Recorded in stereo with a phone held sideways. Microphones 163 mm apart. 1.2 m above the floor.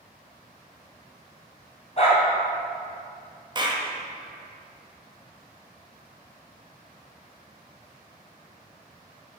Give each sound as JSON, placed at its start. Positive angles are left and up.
{"t": 2.0, "sound": "a dog barking", "side_deg": 45, "distance_m": 2.5}
{"t": 3.5, "sound": "a clap", "side_deg": -30, "distance_m": 1.0}